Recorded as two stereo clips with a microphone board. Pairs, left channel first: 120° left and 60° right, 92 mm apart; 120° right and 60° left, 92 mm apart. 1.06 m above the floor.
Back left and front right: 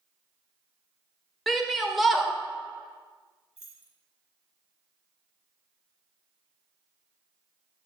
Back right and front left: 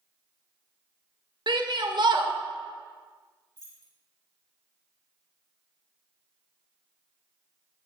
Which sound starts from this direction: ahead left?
A shout, at 1.5 s.